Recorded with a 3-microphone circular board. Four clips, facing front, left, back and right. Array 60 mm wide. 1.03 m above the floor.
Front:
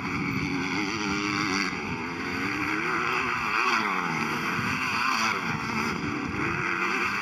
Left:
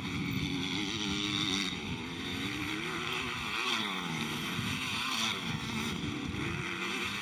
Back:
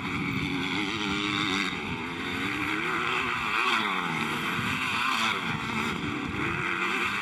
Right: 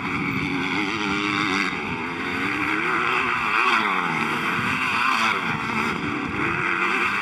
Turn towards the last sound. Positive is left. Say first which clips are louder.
# right 11 dB, front 1 dB
turn(degrees=-80)